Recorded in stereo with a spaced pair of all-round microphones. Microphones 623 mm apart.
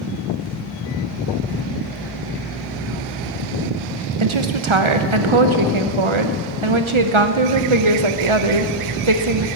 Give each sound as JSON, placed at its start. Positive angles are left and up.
{"t": 4.2, "sound": "a woman speaking", "side_deg": -50, "distance_m": 1.0}